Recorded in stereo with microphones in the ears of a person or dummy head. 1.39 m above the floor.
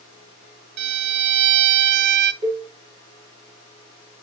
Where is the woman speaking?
No woman speaking in this recording.